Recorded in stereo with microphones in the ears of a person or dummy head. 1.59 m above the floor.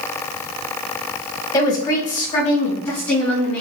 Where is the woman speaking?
20° left (ahead or behind), 2.5 m; by 3.6 s 10° left (ahead or behind), 4.5 m.